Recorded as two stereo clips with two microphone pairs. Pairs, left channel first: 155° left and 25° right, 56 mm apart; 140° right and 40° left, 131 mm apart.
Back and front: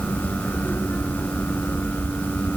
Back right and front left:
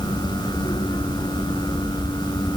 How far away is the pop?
I don't hear a pop.